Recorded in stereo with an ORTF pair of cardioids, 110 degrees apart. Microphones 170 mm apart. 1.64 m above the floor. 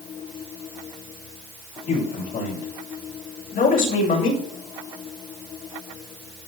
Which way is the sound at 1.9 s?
60° left.